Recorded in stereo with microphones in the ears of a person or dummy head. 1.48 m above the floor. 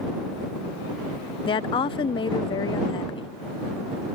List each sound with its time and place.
1.5 s a woman speaking: 30° left (ahead or behind)